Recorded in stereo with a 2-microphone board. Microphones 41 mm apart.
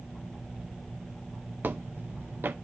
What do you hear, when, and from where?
1.6 s footsteps: 55° right (ahead or behind), 0.6 m